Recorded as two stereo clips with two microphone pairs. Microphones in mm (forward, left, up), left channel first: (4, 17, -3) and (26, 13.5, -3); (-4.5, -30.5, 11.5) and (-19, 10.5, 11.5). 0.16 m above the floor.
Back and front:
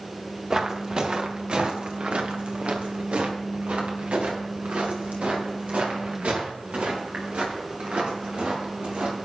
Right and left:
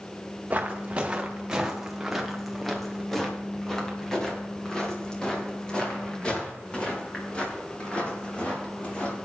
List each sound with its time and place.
0.5 s footsteps: 55° left, 2 m; by 9.2 s 10° right, 7.5 m